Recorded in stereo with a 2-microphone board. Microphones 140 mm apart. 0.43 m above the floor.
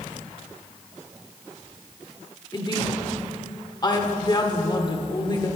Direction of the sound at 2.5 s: 30° left (ahead or behind).